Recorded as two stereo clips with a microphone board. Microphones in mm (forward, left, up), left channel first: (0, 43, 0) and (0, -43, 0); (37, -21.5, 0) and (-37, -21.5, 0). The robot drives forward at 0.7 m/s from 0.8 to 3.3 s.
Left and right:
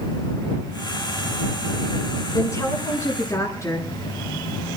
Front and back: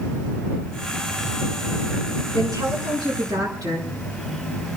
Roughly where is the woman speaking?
Behind left.